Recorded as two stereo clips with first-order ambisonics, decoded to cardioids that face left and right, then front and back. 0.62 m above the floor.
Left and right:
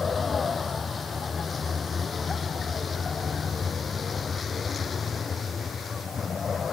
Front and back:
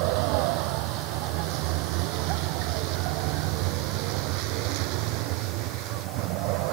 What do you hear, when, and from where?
0.0 s a vehicle: 165° left; by 6.7 s 160° left